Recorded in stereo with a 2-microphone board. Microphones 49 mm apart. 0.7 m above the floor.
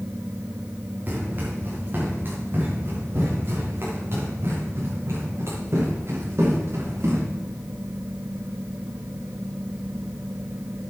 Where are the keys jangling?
I don't hear keys jangling.